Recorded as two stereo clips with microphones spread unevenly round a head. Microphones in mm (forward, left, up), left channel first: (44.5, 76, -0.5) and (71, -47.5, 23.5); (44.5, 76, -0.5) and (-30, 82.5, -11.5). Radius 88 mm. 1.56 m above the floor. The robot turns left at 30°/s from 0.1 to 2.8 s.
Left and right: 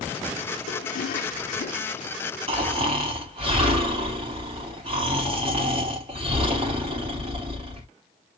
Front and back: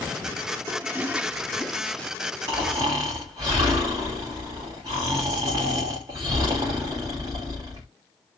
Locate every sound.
0.7 s a toilet flushing: 115° left, 0.7 m; by 2.1 s 70° left, 0.7 m
2.5 s snoring: 115° right, 1.6 m; by 7.9 s 125° right, 1.6 m